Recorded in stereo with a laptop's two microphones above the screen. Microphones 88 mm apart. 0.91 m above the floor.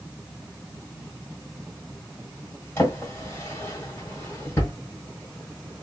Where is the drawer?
30° left (ahead or behind), 1.5 m.